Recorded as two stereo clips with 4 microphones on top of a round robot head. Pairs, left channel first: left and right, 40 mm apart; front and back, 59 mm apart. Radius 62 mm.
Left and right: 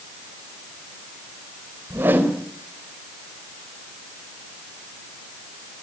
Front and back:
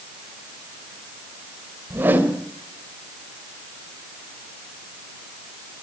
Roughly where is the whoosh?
Behind right.